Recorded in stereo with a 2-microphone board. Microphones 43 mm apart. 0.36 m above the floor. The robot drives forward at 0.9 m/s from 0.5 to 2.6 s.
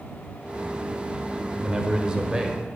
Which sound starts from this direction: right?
A man speaking, at 1.6 s.